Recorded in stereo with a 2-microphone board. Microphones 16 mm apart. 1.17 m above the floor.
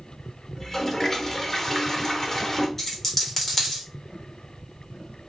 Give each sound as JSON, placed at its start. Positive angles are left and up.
{"t": 0.6, "sound": "a toilet flushing", "side_deg": 15, "distance_m": 0.8}
{"t": 2.8, "sound": "a dropped coin", "side_deg": 20, "distance_m": 1.3}